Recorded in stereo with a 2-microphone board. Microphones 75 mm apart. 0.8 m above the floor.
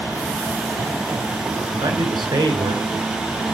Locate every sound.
1.7 s a man speaking: 70° right (ahead or behind), 4.5 m